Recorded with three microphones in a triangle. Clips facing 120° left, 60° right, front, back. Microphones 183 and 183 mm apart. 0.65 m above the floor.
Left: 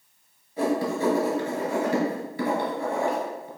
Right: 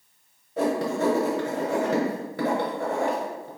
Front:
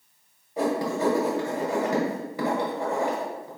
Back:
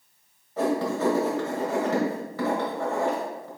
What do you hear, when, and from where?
0.6 s writing: 75° right, 1.5 m